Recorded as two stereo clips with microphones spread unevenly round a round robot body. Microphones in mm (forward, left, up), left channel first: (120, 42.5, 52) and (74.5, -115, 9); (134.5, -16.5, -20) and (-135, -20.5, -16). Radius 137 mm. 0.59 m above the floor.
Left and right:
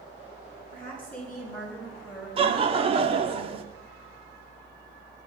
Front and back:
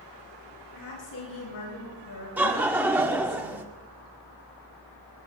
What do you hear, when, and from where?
0.7 s a woman speaking: 5° right, 9.5 m; by 3.4 s 25° right, 8.5 m
2.4 s laughter: 95° right, 1.6 m